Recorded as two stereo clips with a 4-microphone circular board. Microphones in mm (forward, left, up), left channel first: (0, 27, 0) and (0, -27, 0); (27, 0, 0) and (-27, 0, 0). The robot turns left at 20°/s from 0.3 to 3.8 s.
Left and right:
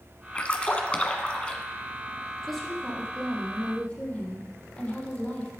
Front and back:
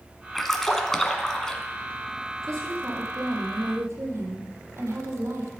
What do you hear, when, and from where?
0.3 s a splash: 80° left, 1.3 m; by 1.6 s 55° left, 1.3 m
2.4 s a woman speaking: straight behind, 4.5 m; by 5.5 s 150° left, 4.5 m